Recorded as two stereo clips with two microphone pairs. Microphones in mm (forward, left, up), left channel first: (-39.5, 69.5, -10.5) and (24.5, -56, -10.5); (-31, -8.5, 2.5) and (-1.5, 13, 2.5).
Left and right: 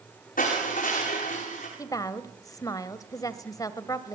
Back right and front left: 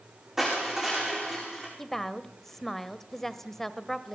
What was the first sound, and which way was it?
Crushing, 115° left.